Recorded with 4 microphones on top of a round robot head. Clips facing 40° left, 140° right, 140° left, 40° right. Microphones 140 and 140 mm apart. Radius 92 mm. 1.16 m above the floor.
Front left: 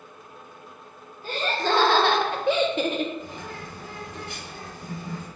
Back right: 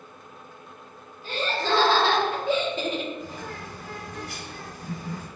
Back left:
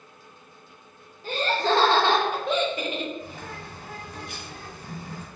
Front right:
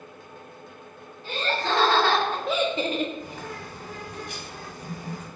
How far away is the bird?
About 1.6 m.